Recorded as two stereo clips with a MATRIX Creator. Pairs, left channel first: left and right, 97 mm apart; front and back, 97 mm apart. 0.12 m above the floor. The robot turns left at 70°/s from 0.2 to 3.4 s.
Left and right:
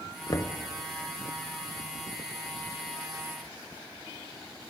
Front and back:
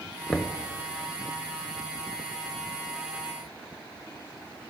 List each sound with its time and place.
0.3 s knocking: 80° left, 1.1 m; by 0.6 s 55° left, 1.1 m